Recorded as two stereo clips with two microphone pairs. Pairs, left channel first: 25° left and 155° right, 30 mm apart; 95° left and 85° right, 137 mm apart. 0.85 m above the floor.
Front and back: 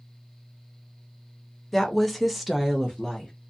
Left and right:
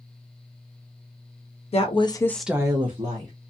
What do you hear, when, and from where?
1.7 s a woman speaking: 110° left, 1.0 m; by 3.3 s 75° right, 1.2 m